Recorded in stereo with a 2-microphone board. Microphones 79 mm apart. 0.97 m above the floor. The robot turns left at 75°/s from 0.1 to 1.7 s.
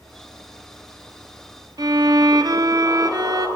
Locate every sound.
1.8 s a violin: 50° right (ahead or behind), 0.8 m